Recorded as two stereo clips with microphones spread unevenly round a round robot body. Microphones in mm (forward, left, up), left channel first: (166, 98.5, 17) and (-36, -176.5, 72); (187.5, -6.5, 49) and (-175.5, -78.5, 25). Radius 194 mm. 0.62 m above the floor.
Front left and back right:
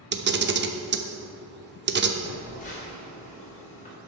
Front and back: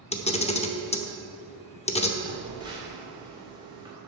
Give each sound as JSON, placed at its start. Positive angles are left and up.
{"t": 0.1, "sound": "a camera shutter", "azimuth_deg": -65, "distance_m": 0.9}
{"t": 2.2, "sound": "a phone buzzing", "azimuth_deg": 115, "distance_m": 2.0}